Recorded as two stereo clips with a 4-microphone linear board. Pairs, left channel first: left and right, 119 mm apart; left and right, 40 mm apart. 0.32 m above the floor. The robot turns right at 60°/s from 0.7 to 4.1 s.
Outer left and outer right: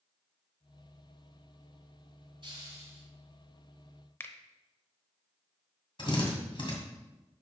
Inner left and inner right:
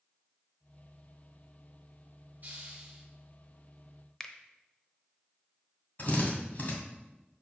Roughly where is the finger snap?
Centre.